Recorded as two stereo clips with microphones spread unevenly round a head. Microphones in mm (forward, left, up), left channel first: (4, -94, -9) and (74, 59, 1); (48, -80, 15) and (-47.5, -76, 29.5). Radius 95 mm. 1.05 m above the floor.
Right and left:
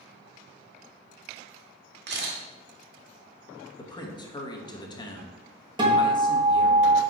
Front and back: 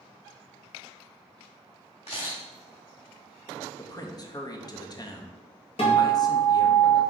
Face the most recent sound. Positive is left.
turn(degrees=0)